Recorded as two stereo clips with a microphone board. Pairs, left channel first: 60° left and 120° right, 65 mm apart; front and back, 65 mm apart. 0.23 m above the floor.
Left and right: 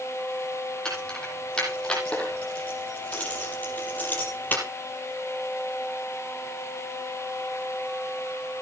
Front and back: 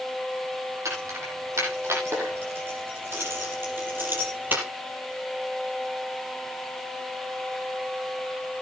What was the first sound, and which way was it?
Keys jangling, 140° left.